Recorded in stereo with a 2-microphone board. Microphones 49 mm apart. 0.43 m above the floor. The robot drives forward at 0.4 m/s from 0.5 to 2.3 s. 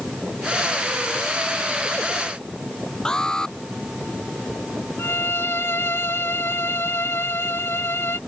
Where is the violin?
55° left (ahead or behind).